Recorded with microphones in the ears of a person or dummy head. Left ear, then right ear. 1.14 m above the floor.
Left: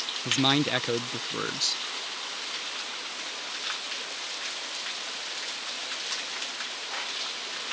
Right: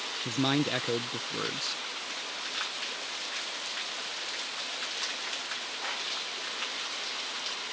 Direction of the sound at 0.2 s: 15° left (ahead or behind).